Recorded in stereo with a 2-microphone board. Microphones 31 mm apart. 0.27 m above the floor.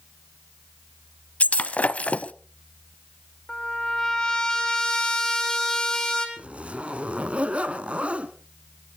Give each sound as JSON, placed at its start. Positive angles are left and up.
{"t": 1.4, "sound": "breaking glass", "side_deg": 50, "distance_m": 0.7}
{"t": 3.5, "sound": "a trumpet", "side_deg": 25, "distance_m": 3.0}
{"t": 6.4, "sound": "a zipper", "side_deg": -45, "distance_m": 1.1}